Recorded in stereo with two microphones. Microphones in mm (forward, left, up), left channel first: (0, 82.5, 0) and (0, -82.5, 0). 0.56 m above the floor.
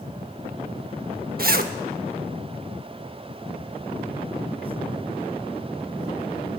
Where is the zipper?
65° right (ahead or behind), 0.8 m.